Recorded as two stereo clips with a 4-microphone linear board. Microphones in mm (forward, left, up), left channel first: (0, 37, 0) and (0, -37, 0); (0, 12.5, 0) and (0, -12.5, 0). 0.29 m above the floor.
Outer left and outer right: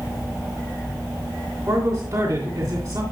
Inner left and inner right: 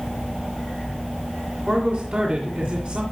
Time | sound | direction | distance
1.7 | a man speaking | 55° right (ahead or behind) | 3 m